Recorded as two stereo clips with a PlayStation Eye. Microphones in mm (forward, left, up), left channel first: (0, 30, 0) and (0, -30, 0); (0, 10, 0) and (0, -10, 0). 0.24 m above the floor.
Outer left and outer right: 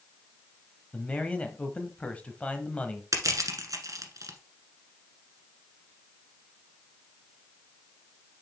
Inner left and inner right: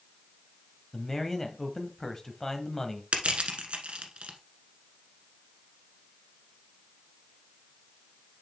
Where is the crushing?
70° right (ahead or behind), 1.3 m.